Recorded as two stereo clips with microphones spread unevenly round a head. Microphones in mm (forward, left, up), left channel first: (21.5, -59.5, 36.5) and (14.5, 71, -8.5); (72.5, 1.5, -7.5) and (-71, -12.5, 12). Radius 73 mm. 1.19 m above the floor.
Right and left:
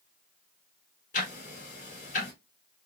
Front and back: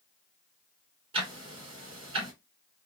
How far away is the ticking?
About 2.5 m.